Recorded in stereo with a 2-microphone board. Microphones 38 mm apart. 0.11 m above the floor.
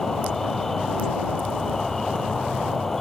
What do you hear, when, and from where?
0.0 s an insect: 10° left (ahead or behind)